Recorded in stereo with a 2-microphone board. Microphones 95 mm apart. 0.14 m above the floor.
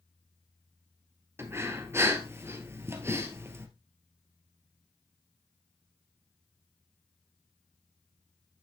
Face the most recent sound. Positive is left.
turn(degrees=-30)  # may be behind; listen again after turning